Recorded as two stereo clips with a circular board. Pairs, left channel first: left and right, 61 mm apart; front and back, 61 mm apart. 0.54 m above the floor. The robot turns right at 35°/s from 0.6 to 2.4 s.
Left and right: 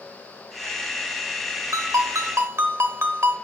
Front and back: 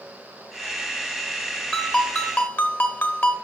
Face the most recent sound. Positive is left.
turn(degrees=-45)